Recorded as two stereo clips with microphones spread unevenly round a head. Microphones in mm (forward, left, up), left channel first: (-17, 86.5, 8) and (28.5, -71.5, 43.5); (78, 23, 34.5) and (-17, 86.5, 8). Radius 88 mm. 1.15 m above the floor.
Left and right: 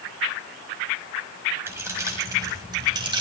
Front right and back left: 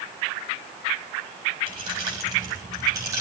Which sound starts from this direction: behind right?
Keys jangling, at 1.7 s.